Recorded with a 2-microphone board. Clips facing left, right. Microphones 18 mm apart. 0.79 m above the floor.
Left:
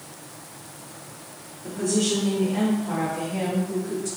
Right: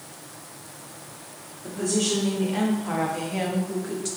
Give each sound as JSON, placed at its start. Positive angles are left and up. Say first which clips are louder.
{"t": 1.6, "sound": "a woman speaking", "louder": "left 1 dB", "side_deg": -15, "distance_m": 1.3}